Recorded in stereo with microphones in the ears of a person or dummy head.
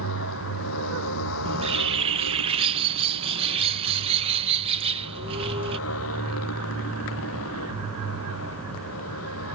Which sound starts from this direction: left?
A motorcycle, at 0.0 s.